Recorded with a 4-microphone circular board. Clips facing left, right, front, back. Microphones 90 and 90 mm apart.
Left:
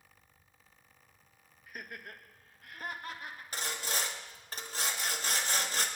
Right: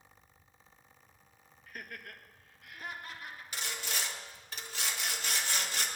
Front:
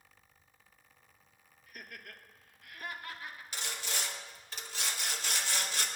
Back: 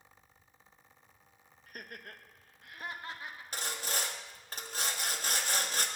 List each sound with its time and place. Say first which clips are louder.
1.7 s laughter: left 1 dB, back 2 dB; 165° left, 1.2 m; by 3.4 s 115° left, 2 m
3.5 s sawing: left 3 dB, back 3 dB; 135° left, 1.3 m